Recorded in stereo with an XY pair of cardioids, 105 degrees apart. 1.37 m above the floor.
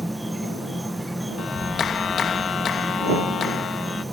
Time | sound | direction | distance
0.0 | an insect | 5° right | ?
1.4 | a clap | 55° left | ?